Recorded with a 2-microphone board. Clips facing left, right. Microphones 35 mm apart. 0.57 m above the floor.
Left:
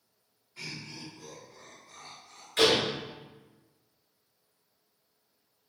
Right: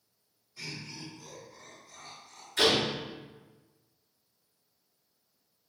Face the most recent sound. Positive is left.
turn(degrees=70)  # may be behind; listen again after turning